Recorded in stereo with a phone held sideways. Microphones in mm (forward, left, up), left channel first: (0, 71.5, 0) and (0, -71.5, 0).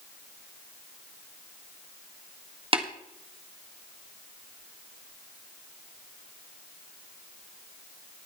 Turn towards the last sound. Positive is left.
turn(degrees=-40)  # may be behind; listen again after turning